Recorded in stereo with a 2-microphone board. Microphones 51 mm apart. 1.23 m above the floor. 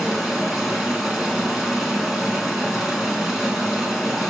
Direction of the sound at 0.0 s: 5° right (ahead or behind).